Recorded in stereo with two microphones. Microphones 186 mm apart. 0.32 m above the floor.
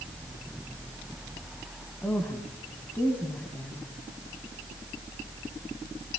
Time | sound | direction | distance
2.0 | a woman speaking | 10° left (ahead or behind) | 1.8 m